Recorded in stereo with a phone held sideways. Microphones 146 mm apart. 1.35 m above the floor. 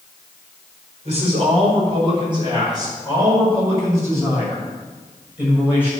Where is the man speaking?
45° right (ahead or behind), 4.5 m; by 5.9 s 10° right (ahead or behind), 7 m.